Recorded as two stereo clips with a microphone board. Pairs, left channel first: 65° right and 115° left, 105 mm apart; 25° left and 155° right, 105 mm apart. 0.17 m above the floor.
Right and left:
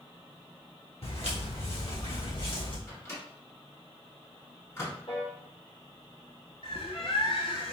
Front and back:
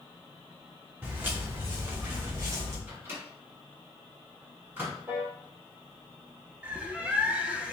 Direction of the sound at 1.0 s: 85° right.